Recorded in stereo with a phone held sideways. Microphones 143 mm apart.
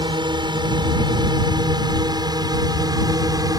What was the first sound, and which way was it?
A drone, 35° right (ahead or behind).